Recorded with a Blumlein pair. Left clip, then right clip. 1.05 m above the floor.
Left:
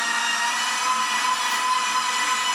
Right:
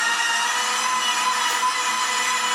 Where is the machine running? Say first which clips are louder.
Right 2 dB; 25° right, 0.9 m.